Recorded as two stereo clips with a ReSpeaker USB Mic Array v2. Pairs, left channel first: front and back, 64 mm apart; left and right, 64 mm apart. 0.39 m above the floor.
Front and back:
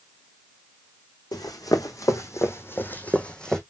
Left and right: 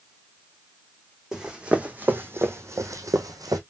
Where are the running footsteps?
10° right, 1.5 m; by 3.6 s 80° right, 1.3 m.